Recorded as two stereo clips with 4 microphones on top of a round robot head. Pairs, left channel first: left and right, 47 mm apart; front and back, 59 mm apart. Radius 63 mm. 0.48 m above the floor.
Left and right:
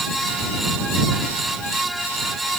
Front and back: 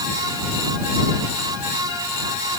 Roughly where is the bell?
I don't hear a bell.